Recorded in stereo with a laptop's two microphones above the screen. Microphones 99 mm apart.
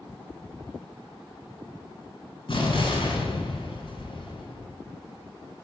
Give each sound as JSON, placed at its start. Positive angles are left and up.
{"t": 2.5, "sound": "an explosion", "side_deg": 55, "distance_m": 2.5}